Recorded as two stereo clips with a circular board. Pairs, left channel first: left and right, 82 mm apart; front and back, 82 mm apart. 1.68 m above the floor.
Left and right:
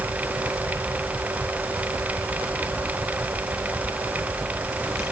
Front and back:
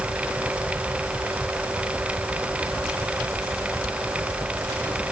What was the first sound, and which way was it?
Only background noise.